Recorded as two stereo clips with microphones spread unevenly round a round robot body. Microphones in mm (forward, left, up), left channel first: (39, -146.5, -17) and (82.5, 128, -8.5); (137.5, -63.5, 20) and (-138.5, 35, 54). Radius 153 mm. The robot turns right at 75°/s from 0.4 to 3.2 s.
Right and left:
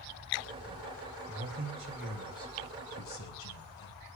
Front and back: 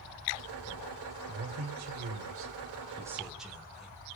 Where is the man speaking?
110° left, 1.9 m; by 4.0 s 105° right, 1.9 m.